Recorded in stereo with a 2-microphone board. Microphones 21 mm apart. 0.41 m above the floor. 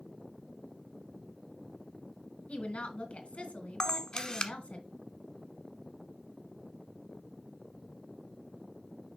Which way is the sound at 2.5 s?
65° left (ahead or behind).